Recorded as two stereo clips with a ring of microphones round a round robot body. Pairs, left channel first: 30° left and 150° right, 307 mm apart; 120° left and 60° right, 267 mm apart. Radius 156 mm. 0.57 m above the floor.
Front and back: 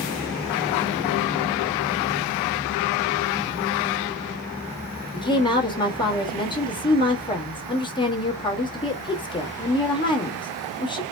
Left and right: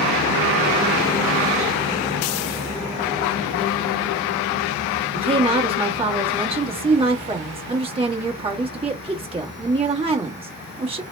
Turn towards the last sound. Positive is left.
turn(degrees=-25)